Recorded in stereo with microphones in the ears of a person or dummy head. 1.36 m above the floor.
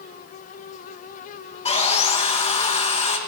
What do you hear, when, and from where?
1.6 s sawing: 25° left (ahead or behind), 0.9 m